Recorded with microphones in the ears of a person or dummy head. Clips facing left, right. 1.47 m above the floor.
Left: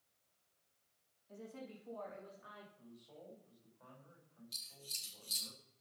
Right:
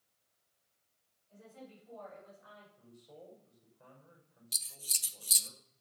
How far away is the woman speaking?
About 3.5 m.